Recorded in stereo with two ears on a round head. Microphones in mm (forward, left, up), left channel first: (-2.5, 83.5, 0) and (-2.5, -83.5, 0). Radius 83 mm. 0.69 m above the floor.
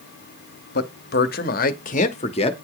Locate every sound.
0.8 s a man speaking: 60° left (ahead or behind), 1.3 m; by 2.5 s 30° left (ahead or behind), 1.2 m